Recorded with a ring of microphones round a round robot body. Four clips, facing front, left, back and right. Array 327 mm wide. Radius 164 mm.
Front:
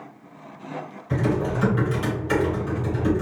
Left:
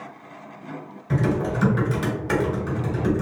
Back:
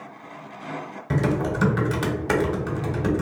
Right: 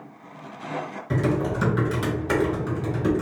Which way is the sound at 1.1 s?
Straight behind.